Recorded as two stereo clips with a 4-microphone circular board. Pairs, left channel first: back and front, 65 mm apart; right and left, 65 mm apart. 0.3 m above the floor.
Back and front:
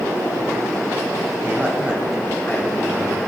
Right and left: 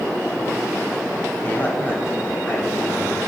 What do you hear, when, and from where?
1.4 s a man speaking: 45° right, 2.0 m; by 3.2 s 175° right, 2.0 m